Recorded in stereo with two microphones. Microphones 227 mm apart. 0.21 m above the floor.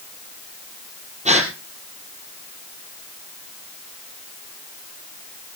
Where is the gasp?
30° right (ahead or behind), 3 m.